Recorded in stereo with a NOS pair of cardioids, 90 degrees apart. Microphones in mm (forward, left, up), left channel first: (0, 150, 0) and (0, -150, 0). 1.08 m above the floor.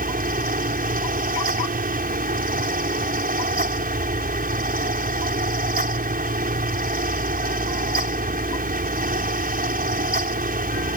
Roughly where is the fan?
Ahead right.